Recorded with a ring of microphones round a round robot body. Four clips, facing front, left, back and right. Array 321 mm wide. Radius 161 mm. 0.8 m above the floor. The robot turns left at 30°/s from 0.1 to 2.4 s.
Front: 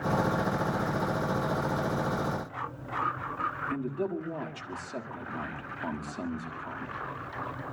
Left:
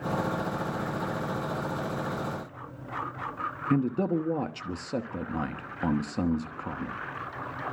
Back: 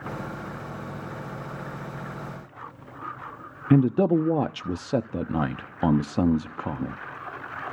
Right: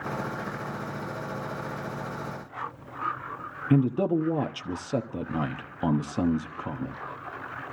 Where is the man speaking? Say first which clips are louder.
Right 3 dB, back 12 dB; 175° right, 1.2 m.